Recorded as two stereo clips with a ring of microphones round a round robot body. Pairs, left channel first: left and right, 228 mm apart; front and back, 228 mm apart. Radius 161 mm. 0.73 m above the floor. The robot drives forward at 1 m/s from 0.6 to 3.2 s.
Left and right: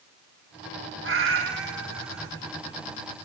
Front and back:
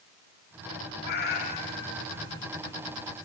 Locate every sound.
1.0 s a cat meowing: 55° right, 1.6 m; by 2.3 s 105° right, 1.4 m